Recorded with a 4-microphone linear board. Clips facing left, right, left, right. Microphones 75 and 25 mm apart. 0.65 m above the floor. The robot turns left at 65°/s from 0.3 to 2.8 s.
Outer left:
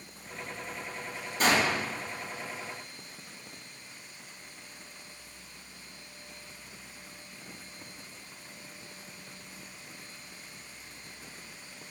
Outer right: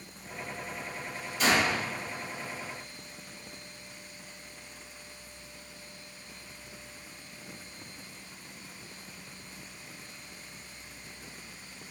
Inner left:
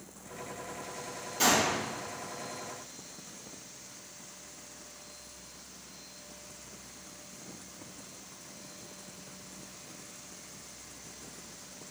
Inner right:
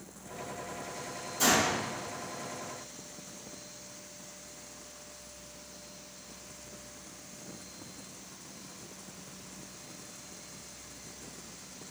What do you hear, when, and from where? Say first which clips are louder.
1.4 s a gunshot: even, even; 35° left (ahead or behind), 1.3 m; by 1.8 s 60° left (ahead or behind), 1.3 m